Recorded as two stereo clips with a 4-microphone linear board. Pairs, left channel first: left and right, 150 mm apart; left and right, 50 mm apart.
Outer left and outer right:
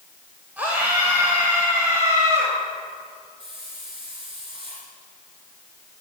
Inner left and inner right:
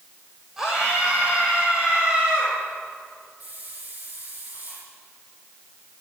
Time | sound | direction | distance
0.6 | a scream | 10° right (ahead or behind) | 4 m
3.4 | a hiss | 35° right (ahead or behind) | 8.5 m